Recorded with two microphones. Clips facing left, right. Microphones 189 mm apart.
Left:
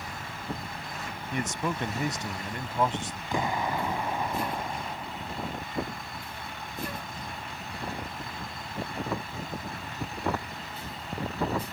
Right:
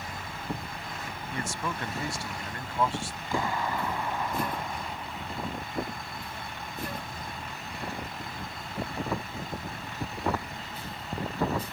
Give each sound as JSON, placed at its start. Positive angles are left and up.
{"t": 1.3, "sound": "a man speaking", "side_deg": 20}
{"t": 3.3, "sound": "an explosion", "side_deg": 20}